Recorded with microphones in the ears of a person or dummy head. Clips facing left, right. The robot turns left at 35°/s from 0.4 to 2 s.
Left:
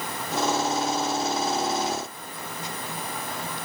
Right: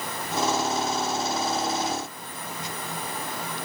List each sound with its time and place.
Only background noise.